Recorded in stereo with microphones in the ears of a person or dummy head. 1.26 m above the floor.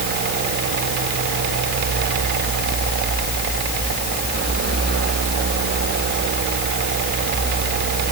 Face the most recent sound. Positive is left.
No sound to turn to.